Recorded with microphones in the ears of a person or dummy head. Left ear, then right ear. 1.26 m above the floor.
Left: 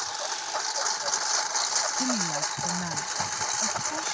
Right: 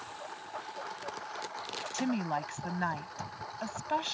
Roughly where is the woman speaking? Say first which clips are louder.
Left 6 dB; right.